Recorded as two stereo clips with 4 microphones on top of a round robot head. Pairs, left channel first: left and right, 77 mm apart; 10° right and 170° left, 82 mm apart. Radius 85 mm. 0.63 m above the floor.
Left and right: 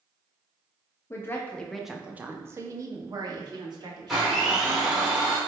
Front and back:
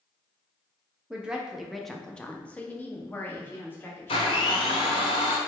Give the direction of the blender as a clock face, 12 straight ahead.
12 o'clock.